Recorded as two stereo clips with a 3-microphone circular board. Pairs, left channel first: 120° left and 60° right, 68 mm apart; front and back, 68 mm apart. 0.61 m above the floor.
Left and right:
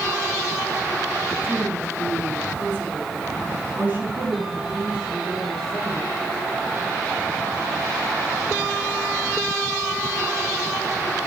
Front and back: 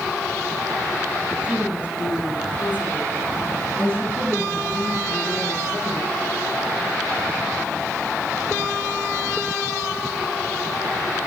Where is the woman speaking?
115° right, 4.5 m; by 6.1 s 130° right, 7 m.